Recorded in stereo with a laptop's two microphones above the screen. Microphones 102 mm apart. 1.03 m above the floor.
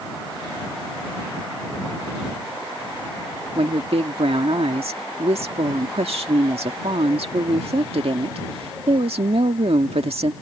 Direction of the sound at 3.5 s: 80° right.